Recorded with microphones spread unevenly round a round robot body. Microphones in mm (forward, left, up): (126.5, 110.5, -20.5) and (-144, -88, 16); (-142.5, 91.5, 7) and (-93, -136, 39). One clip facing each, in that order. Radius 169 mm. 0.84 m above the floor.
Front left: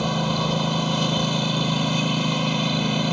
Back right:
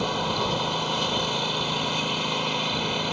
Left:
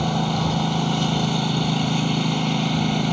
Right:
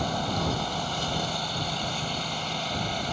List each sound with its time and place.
0.0 s a lawn mower: 50° left